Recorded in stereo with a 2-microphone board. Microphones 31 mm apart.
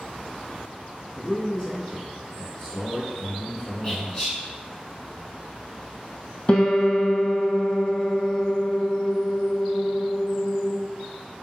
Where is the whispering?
25° left (ahead or behind), 1.6 m.